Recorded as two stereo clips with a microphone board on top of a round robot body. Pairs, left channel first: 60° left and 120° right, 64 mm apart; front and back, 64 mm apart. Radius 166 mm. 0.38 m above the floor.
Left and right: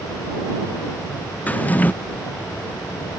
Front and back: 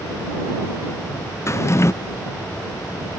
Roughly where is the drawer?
Ahead.